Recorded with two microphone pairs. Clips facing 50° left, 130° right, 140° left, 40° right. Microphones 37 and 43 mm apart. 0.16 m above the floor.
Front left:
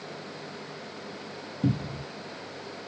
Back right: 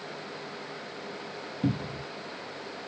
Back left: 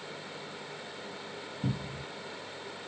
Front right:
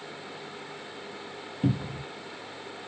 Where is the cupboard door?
55° right, 0.6 m.